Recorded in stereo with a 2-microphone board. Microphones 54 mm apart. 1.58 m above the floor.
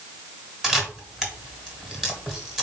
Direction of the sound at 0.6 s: 10° right (ahead or behind).